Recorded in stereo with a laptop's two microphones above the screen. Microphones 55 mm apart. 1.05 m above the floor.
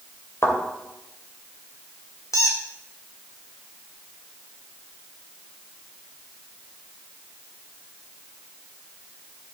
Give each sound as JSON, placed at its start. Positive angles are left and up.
{"t": 0.4, "sound": "a thud", "side_deg": 55, "distance_m": 2.5}
{"t": 2.3, "sound": "a squeak", "side_deg": 80, "distance_m": 1.6}